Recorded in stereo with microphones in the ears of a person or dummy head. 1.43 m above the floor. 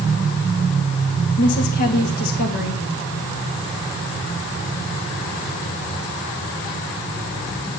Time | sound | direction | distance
1.4 | a woman speaking | 50° left (ahead or behind) | 3 m